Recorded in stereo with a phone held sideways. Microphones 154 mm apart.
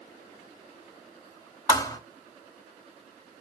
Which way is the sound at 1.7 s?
25° left (ahead or behind).